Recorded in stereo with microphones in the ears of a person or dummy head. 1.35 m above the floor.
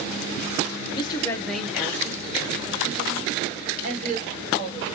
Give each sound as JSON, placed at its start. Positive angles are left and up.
{"t": 0.9, "sound": "a woman speaking", "side_deg": 30, "distance_m": 0.7}